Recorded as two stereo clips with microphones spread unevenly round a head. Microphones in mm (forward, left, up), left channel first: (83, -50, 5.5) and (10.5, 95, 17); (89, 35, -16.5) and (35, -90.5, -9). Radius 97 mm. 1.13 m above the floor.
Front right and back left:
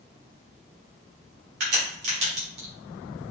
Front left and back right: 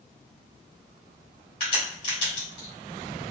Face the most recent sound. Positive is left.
turn(degrees=130)